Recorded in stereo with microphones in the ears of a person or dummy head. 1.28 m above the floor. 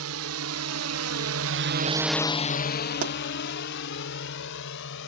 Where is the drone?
80° right; by 5.1 s 65° left (ahead or behind).